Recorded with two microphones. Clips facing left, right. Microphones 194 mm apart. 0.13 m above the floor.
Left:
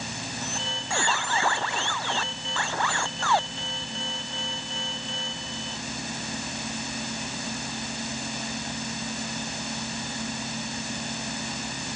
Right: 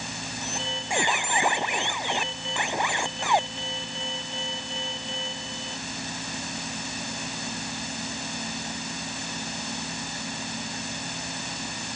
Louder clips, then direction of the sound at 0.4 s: Right 1 dB; 15° right (ahead or behind).